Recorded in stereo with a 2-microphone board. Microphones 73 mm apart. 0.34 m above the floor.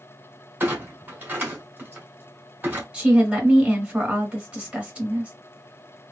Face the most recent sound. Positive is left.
turn(degrees=-15)  # may be behind; listen again after turning